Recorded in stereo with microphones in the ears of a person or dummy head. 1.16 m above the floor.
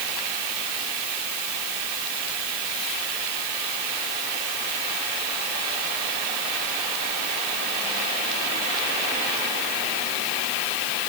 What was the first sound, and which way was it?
Only background noise.